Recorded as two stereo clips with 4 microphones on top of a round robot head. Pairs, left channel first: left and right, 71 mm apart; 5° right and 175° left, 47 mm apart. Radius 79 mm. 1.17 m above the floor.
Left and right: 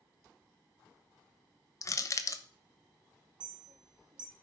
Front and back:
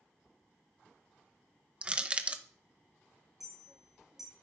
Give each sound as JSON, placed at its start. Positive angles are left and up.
{"t": 1.8, "sound": "crushing", "azimuth_deg": 120, "distance_m": 1.0}
{"t": 3.4, "sound": "a clink", "azimuth_deg": -100, "distance_m": 1.9}